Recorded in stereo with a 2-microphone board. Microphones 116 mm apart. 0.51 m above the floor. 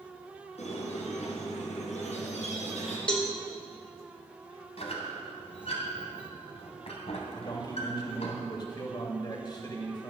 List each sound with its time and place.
0.6 s a squeak: 70° left (ahead or behind), 4 m
3.1 s a cowbell: 10° left (ahead or behind), 1.8 m
4.8 s a squeak: 60° left (ahead or behind), 2.5 m
7.3 s a man speaking: 35° left (ahead or behind), 2.5 m